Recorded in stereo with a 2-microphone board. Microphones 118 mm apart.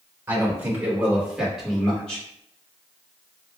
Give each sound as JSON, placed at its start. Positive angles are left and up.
{"t": 0.3, "sound": "a man speaking", "side_deg": -20, "distance_m": 1.6}